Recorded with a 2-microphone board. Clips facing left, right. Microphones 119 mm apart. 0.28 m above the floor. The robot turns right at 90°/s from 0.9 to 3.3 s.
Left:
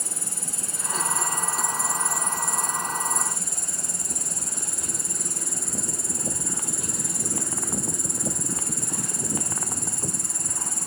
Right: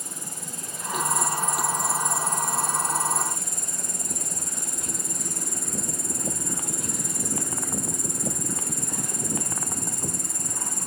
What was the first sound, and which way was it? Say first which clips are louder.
An insect: left 1 dB; 95° left.